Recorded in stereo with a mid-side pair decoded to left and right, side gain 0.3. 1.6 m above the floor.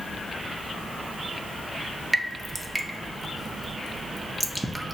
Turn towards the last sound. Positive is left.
turn(degrees=-25)